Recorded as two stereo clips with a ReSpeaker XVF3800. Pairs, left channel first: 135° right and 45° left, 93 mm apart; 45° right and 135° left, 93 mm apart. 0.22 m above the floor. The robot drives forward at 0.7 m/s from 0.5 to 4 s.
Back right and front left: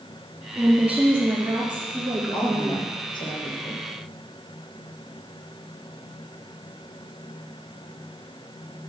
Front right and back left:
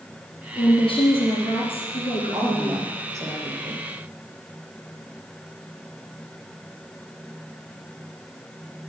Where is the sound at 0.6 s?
35° right, 5 m; by 2.8 s 55° right, 3.5 m.